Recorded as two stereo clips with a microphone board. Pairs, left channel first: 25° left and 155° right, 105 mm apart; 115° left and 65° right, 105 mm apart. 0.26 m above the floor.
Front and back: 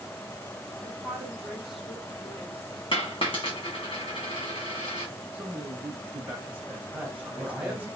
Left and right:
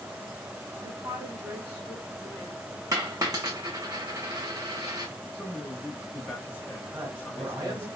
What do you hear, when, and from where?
0.8 s a woman speaking: 80° right, 1.8 m; by 2.8 s 100° left, 1.4 m
2.9 s a dropped coin: 15° right, 1.4 m
5.3 s a man speaking: 155° left, 0.9 m
6.9 s a woman speaking: 80° right, 1.3 m